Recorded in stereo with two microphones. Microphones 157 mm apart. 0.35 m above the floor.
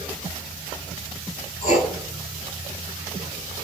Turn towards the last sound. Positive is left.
turn(degrees=50)  # may be behind; listen again after turning